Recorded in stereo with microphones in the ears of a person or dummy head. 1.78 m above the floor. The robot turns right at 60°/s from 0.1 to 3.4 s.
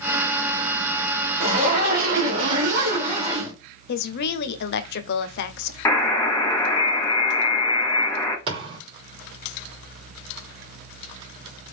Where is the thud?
30° right (ahead or behind), 2.5 m.